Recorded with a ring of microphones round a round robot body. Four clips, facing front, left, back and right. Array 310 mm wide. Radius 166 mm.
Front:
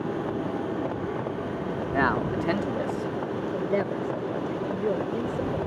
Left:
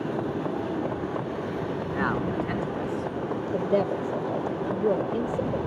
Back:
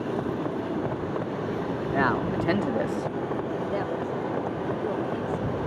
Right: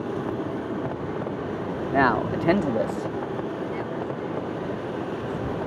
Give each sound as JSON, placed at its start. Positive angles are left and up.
{"t": 1.9, "sound": "a man speaking", "azimuth_deg": -85}
{"t": 3.5, "sound": "a woman speaking", "azimuth_deg": 60}